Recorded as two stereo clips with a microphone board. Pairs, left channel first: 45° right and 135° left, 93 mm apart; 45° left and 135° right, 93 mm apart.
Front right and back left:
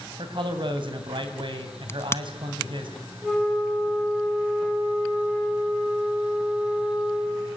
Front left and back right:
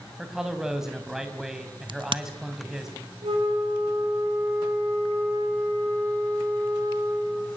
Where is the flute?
140° right, 6.5 m.